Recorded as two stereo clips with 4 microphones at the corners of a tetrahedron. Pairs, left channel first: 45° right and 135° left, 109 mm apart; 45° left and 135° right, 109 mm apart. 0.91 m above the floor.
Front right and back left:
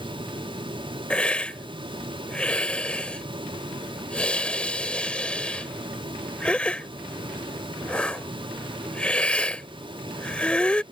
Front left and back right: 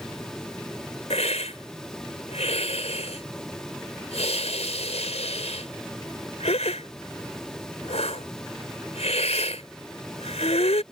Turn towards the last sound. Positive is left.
turn(degrees=35)